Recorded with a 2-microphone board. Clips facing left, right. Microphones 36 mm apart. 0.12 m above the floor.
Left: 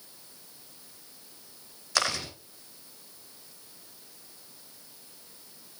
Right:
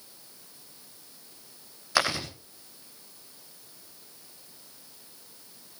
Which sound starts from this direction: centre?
Chewing, at 1.9 s.